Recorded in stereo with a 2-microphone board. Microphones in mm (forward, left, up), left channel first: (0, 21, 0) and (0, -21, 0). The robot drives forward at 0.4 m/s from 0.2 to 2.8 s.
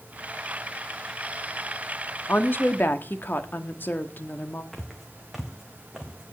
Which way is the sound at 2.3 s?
50° left (ahead or behind).